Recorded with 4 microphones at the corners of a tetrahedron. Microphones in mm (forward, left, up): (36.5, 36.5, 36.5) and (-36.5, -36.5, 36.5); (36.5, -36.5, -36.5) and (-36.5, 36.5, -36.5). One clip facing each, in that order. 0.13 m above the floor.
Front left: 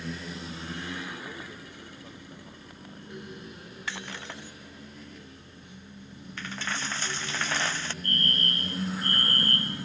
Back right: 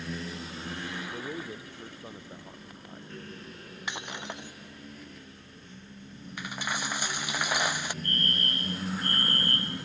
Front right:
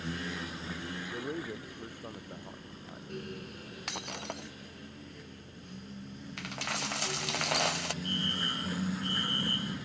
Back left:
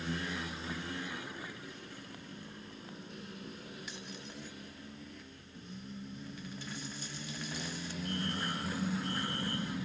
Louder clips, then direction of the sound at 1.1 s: Back right 4 dB, front right 7 dB; 75° right.